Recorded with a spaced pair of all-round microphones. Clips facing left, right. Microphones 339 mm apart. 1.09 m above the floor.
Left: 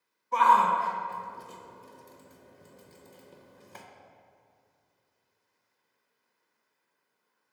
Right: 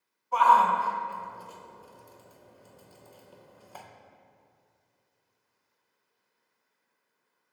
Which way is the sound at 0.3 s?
30° left (ahead or behind).